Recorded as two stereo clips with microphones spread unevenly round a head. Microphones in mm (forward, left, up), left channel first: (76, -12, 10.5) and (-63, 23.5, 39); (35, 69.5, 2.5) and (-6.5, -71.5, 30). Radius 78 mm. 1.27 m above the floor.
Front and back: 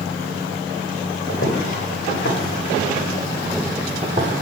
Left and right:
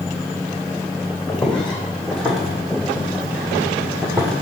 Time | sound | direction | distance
1.3 | footsteps | 15° right | 3 m